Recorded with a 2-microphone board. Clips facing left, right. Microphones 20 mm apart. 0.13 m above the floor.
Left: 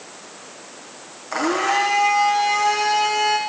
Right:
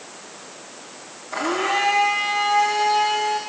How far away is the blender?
About 9 m.